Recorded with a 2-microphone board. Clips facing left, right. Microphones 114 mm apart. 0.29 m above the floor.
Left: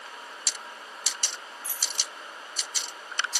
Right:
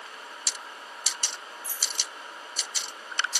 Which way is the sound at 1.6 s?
75° left (ahead or behind).